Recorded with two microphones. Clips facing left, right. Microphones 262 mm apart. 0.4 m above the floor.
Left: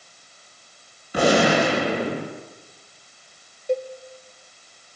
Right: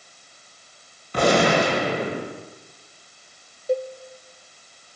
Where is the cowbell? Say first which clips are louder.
Right 1 dB; 5° right (ahead or behind), 1.6 m.